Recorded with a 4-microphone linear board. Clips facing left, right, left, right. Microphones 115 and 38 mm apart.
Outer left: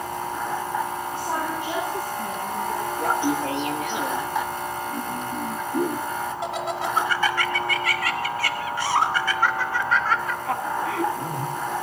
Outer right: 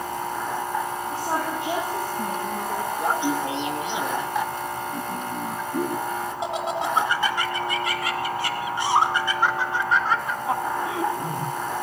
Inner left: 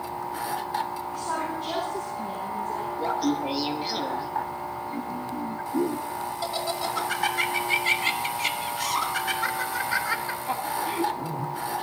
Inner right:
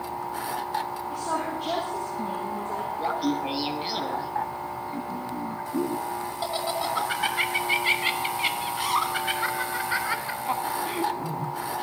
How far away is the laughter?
About 1.3 m.